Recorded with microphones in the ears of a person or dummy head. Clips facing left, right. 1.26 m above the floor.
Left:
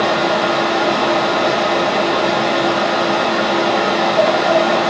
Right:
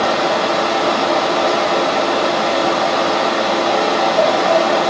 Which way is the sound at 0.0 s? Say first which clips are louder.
Even; centre (ahead or behind).